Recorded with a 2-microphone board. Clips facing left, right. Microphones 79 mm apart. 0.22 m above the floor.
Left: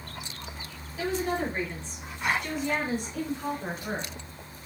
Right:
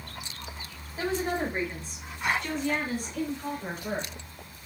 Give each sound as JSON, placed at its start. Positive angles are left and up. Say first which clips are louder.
{"t": 1.0, "sound": "a woman speaking", "louder": "even", "side_deg": -35, "distance_m": 2.0}